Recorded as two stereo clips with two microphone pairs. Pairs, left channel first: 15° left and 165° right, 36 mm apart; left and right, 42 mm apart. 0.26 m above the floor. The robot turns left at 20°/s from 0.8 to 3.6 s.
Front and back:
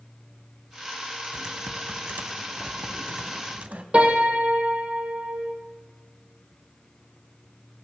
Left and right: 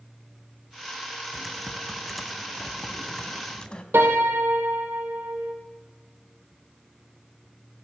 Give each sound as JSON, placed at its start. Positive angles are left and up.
{"t": 1.3, "sound": "typing on a keyboard", "azimuth_deg": -160, "distance_m": 0.7}
{"t": 3.9, "sound": "a piano", "azimuth_deg": -115, "distance_m": 1.4}